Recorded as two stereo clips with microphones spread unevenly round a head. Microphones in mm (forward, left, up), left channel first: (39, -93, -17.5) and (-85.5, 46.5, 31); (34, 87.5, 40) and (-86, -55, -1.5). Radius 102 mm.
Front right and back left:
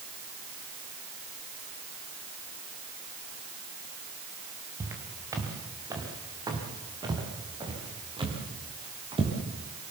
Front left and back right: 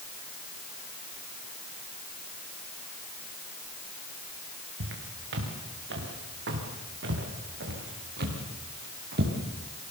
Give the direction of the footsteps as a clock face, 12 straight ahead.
5 o'clock.